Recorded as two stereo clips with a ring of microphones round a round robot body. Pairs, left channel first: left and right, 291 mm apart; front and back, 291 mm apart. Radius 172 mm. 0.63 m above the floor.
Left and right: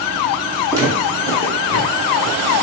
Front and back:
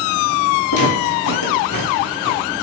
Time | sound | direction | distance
0.7 | footsteps | 15° right | 1.8 m